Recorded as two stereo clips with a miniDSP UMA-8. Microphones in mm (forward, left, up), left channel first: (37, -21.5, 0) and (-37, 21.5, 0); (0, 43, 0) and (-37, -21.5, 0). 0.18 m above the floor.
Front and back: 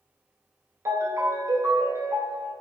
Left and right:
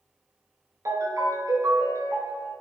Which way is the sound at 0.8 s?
155° right.